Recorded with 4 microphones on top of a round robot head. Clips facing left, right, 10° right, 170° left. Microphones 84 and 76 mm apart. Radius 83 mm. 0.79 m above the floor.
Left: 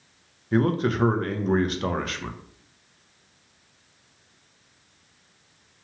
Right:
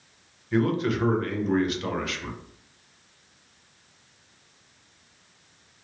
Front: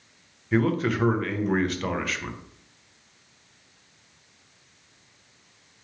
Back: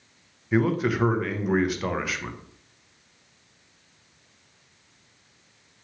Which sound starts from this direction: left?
A man speaking, at 0.5 s.